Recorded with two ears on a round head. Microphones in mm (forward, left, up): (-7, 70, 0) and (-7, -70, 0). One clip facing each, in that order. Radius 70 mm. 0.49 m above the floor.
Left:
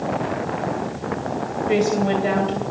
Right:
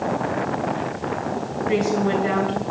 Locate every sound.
1.7 s a woman speaking: 40° left (ahead or behind), 3 m